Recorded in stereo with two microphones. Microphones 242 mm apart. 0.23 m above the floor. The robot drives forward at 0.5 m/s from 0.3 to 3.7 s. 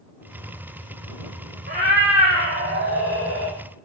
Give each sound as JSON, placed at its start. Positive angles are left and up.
{"t": 1.7, "sound": "a cat meowing", "side_deg": -45, "distance_m": 1.2}